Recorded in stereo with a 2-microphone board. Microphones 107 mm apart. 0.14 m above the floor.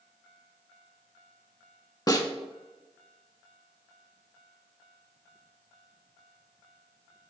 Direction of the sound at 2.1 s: 35° left (ahead or behind).